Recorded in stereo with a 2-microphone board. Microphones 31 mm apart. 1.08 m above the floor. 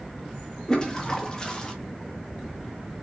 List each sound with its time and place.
0.7 s a toilet flushing: 25° left (ahead or behind), 0.9 m